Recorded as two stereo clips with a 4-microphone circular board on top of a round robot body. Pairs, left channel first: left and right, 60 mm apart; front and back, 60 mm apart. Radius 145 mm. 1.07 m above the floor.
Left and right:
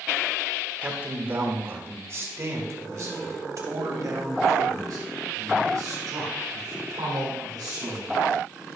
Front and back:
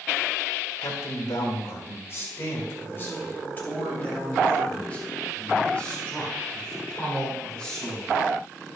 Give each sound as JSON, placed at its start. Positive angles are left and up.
{"t": 0.8, "sound": "a man speaking", "azimuth_deg": -25, "distance_m": 1.8}